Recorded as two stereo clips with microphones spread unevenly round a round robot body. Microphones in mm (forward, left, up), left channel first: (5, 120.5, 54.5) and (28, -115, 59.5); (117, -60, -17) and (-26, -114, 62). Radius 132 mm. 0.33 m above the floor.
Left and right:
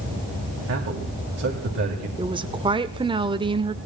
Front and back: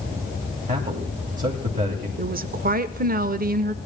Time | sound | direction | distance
0.7 | a man speaking | 110° right | 3 m
2.2 | a woman speaking | 130° right | 0.9 m